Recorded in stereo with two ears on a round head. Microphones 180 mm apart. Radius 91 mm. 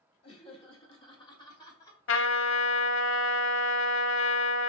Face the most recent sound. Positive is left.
turn(degrees=60)  # may be behind; listen again after turning